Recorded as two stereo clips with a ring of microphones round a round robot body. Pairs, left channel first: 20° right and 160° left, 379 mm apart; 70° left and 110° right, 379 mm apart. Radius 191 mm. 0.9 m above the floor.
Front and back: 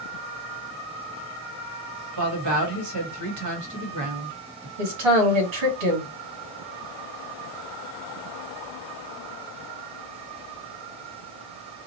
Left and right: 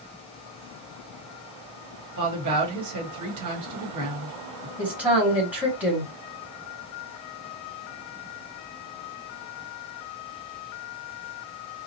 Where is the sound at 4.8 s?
160° left, 1.9 m.